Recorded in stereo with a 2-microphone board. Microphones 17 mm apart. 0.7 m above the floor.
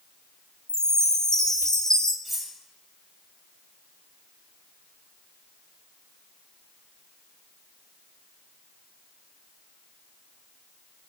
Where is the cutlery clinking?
Centre (ahead or behind), 2 m.